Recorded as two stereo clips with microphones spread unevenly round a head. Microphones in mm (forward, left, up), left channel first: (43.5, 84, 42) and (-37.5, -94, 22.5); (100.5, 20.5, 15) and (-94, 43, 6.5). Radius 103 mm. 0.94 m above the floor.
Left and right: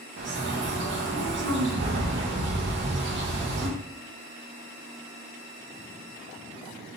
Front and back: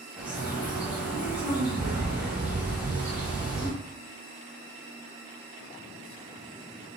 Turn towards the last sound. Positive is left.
turn(degrees=-105)